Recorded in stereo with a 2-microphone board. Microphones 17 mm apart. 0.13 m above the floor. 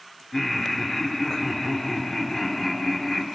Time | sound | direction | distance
0.3 | laughter | 25° left (ahead or behind) | 1.8 m